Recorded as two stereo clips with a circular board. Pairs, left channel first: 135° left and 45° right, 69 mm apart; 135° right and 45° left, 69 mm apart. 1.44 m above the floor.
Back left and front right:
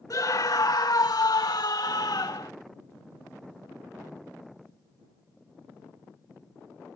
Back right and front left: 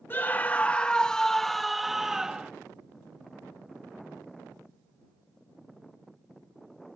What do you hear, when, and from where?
0.1 s a scream: 165° left; by 2.5 s 125° left